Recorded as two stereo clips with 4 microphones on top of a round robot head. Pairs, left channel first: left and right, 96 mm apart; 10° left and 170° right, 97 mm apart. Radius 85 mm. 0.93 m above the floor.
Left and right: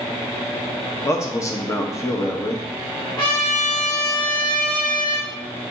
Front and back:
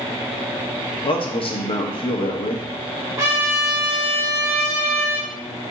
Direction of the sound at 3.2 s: 130° left.